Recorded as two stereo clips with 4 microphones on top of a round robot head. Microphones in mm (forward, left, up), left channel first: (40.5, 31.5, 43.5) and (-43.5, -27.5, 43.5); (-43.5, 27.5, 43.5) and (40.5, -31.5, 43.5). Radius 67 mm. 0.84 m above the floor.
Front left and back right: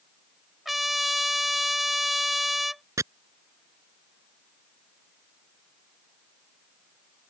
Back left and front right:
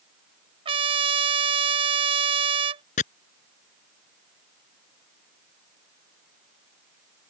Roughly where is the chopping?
Behind left.